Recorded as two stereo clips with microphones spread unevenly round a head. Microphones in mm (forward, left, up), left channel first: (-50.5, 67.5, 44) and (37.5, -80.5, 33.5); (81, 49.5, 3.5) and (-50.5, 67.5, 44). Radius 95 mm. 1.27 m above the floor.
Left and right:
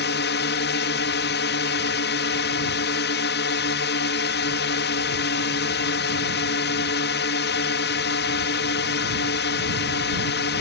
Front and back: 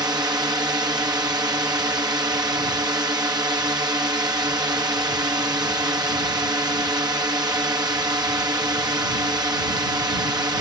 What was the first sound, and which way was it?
A drone, 105° left.